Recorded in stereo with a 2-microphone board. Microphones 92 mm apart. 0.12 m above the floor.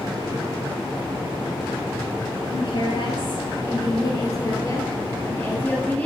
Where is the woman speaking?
60° left (ahead or behind), 2.5 m; by 6.1 s 15° left (ahead or behind), 2 m.